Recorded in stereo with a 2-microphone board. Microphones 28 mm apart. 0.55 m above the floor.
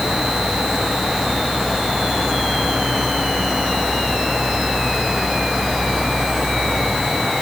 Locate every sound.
Only background noise.